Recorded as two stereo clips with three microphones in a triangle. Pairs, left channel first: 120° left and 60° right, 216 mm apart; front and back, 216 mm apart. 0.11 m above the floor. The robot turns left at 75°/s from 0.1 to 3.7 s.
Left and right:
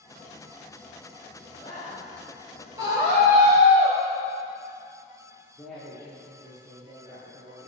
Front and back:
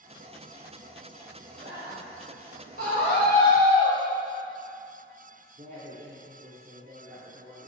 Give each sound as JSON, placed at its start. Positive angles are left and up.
{"t": 1.5, "sound": "a man speaking", "azimuth_deg": -170, "distance_m": 2.5}
{"t": 2.8, "sound": "a scream", "azimuth_deg": 15, "distance_m": 2.0}
{"t": 5.6, "sound": "a woman speaking", "azimuth_deg": -150, "distance_m": 1.9}